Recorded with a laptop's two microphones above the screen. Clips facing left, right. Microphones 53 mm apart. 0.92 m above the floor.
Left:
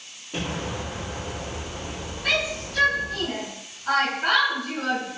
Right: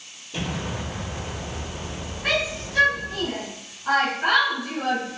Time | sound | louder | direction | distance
0.3 | an explosion | even | 60° left (ahead or behind) | 1.4 m
2.2 | a shout | right 1 dB | 30° right (ahead or behind) | 1.2 m